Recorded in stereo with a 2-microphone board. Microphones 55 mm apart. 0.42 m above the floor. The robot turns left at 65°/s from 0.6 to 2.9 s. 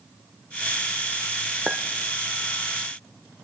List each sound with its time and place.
1.7 s a clink: 5° right (ahead or behind), 0.5 m; by 1.8 s centre (ahead or behind), 0.5 m